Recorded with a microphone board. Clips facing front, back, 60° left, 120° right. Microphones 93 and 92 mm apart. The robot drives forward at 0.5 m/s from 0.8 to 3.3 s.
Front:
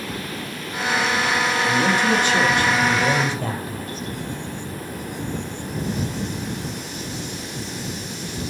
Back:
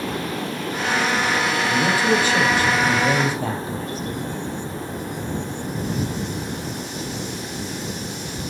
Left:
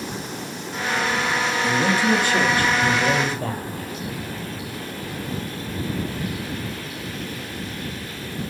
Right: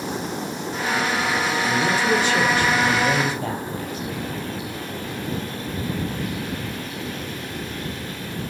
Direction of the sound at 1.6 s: 95° left.